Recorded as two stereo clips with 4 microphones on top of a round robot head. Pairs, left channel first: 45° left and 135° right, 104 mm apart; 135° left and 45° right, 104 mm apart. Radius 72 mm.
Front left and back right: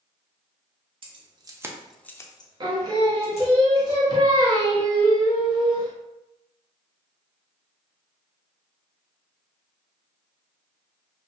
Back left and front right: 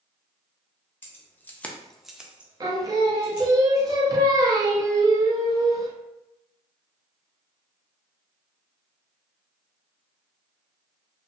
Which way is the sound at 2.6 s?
95° right.